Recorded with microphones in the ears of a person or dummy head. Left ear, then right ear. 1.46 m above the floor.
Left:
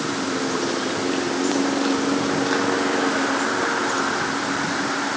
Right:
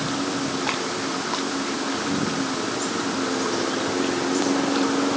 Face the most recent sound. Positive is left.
No sound to turn to.